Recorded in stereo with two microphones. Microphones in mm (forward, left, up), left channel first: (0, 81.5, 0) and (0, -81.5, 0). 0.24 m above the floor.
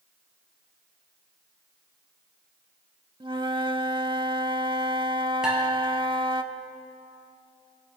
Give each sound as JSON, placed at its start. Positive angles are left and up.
{"t": 3.2, "sound": "a flute", "side_deg": -30, "distance_m": 0.5}
{"t": 5.4, "sound": "dishes clattering", "side_deg": -5, "distance_m": 3.0}